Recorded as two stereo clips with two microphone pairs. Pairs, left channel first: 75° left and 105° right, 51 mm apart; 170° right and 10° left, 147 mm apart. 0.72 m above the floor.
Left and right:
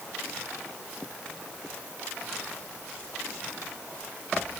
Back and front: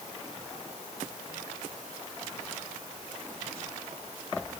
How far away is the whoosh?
No whoosh in this recording.